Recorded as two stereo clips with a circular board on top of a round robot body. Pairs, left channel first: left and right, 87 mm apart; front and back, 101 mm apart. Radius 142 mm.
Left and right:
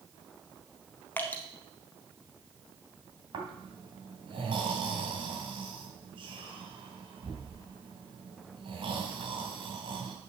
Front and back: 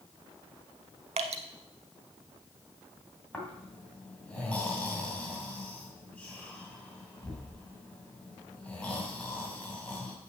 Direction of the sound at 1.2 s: 160° left.